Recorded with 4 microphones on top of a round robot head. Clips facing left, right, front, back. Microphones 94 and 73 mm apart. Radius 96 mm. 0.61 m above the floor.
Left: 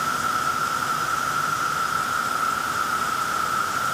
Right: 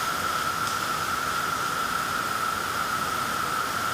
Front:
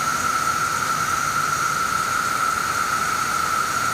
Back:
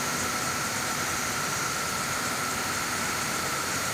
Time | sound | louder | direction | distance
0.0 | an insect | left 4 dB, front 9 dB | 30° left | ?